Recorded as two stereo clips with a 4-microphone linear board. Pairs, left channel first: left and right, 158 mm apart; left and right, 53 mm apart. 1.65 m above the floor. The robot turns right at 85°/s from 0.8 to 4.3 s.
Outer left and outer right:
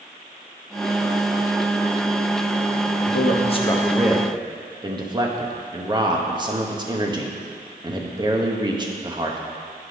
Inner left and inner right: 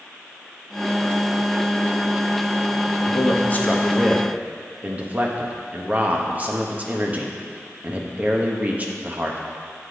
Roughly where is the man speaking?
Left.